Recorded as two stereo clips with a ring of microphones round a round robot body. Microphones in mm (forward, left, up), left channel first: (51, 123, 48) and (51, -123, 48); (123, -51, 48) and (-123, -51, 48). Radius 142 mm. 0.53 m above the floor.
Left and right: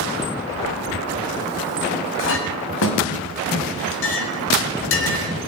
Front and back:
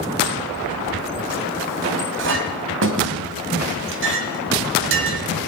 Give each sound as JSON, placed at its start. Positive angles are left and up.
{"t": 2.2, "sound": "a clink", "azimuth_deg": 135, "distance_m": 1.9}